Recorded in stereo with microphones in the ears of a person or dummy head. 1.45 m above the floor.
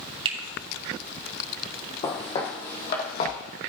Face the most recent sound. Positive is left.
turn(degrees=50)  # may be behind; listen again after turning